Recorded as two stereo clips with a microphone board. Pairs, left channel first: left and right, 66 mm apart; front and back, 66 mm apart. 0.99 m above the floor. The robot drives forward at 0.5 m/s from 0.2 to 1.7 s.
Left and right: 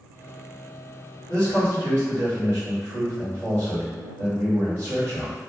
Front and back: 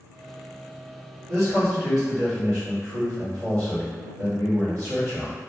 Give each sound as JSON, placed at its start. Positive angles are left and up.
{"t": 1.3, "sound": "a man speaking", "azimuth_deg": -150, "distance_m": 1.8}